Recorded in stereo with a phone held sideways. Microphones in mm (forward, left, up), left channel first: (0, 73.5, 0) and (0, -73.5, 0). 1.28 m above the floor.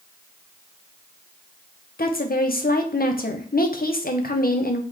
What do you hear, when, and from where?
2.0 s a woman speaking: 70° left (ahead or behind), 0.7 m